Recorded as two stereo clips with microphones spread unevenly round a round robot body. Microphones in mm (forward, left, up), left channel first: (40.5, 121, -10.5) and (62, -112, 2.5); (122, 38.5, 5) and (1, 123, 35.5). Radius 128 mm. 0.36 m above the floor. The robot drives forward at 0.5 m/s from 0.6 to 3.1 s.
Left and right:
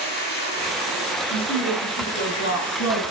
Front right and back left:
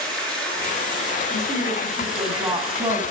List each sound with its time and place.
0.0 s running water: 50° left, 5 m; by 3.1 s 65° left, 4 m
1.3 s a woman speaking: 70° left, 3.5 m; by 3.0 s 85° left, 3.5 m